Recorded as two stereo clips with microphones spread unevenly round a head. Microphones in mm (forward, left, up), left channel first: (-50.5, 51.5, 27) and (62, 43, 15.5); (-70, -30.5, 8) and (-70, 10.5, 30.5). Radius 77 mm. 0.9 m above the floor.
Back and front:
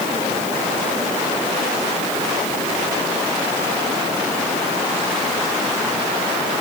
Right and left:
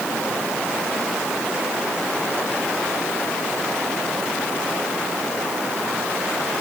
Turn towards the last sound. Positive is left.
No sound to turn to.